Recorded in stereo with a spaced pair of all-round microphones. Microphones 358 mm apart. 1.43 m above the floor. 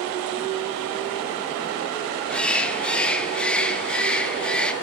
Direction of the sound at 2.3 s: 5° left (ahead or behind).